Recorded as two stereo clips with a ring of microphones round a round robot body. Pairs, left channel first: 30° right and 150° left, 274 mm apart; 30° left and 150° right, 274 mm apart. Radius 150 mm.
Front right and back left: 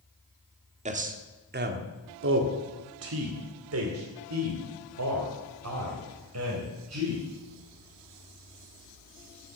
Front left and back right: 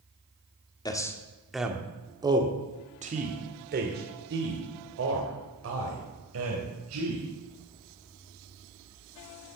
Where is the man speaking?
100° left, 1.4 m; by 7.2 s straight behind, 3.5 m.